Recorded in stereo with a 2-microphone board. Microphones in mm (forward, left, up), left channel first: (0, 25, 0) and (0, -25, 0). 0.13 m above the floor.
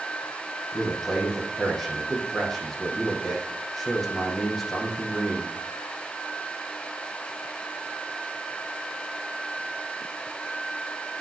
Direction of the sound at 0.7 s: 5° left (ahead or behind).